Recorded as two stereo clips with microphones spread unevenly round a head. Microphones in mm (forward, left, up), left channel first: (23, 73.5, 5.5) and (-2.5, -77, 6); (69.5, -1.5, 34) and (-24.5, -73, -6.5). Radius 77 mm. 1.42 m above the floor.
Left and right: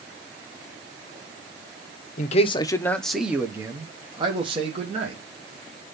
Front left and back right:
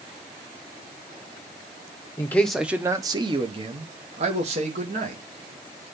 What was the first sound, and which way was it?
A man speaking, 115° left.